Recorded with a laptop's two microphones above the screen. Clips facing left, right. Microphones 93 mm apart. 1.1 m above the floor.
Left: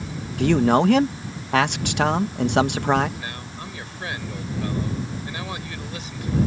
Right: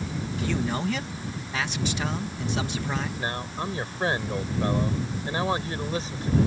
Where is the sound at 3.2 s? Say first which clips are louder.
Right 4 dB; 35° right (ahead or behind).